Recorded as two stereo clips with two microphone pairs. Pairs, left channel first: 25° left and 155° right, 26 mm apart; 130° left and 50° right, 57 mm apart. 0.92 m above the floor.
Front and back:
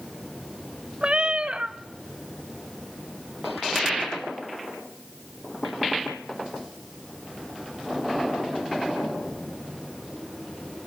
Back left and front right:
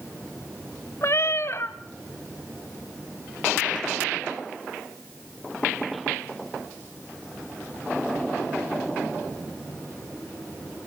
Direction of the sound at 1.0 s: 160° left.